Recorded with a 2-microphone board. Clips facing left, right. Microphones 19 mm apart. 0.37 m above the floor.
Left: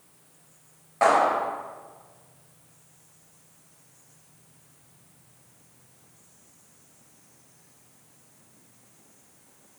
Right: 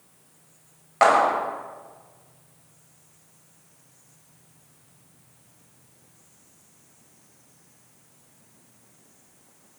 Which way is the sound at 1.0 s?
60° right (ahead or behind).